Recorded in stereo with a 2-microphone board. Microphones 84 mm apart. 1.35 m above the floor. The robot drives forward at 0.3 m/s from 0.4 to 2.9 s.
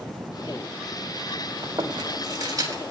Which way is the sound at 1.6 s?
50° right (ahead or behind).